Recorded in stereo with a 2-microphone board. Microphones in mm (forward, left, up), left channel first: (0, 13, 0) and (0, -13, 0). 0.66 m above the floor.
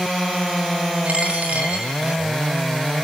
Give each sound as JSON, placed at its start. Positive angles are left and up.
{"t": 1.1, "sound": "a dropped coin", "side_deg": -65, "distance_m": 3.5}